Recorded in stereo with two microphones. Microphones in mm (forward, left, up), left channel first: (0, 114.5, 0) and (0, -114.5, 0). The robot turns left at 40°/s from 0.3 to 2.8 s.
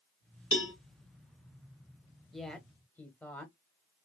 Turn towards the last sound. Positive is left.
turn(degrees=5)  # may be behind; listen again after turning